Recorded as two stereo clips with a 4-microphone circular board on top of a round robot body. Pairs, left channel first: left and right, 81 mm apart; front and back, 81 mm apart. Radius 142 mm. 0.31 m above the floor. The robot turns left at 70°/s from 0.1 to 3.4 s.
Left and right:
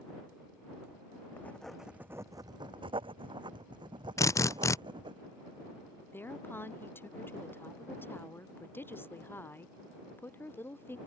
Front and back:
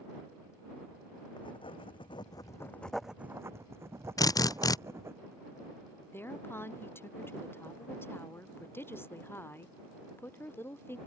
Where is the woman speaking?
45° left.